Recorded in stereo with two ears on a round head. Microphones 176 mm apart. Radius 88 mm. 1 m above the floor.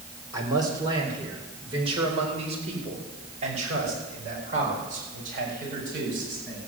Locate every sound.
0.3 s a man speaking: 15° right (ahead or behind), 4 m; by 6.7 s 45° right (ahead or behind), 8 m